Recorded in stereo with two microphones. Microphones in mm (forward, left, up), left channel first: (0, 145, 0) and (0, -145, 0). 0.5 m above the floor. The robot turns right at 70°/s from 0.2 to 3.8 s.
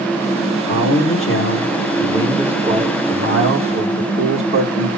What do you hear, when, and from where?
0.7 s a man speaking: 60° left, 1.1 m; by 4.9 s 80° right, 1.1 m